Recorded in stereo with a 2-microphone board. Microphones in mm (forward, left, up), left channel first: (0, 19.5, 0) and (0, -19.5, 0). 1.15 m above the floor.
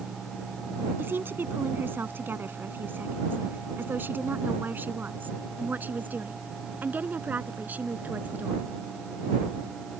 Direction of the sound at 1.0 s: 65° right (ahead or behind).